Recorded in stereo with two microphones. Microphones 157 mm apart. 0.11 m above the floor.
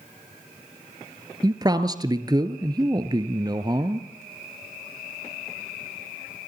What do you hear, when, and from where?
1.4 s a man speaking: 25° right (ahead or behind), 1.6 m